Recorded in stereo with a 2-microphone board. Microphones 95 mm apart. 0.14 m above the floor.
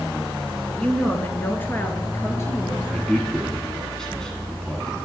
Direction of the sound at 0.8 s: 10° left (ahead or behind).